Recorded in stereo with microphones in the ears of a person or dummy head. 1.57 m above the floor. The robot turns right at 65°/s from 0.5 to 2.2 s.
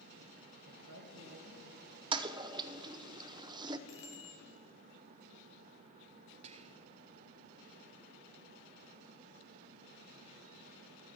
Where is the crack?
No crack in this recording.